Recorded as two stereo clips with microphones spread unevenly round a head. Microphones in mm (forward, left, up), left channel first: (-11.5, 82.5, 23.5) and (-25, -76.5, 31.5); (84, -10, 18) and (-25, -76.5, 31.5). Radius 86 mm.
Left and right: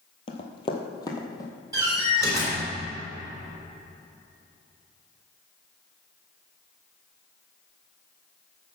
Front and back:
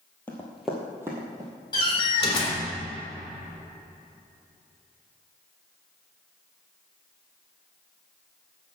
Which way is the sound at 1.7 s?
25° right.